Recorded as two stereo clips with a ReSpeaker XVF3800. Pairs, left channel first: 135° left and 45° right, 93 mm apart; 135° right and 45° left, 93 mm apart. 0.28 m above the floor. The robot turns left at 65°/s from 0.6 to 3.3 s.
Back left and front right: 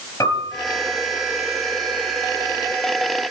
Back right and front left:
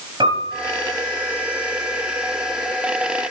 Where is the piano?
75° left, 5.5 m.